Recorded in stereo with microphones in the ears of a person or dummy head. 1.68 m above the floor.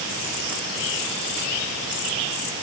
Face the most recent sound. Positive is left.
No sound to turn to.